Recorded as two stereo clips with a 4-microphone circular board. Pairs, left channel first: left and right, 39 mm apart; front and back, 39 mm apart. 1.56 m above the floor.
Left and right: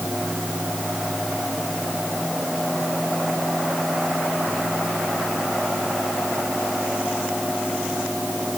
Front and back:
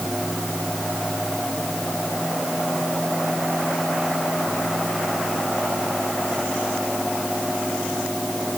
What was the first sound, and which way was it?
Only background noise.